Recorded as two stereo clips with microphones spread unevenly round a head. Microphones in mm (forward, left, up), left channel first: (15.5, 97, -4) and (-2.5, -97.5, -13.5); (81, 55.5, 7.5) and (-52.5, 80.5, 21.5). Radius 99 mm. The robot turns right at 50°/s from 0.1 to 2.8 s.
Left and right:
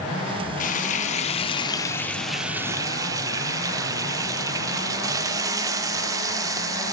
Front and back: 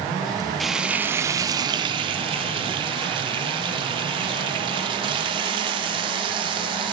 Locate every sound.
0.6 s frying: 85° left, 0.6 m; by 6.9 s 165° right, 0.6 m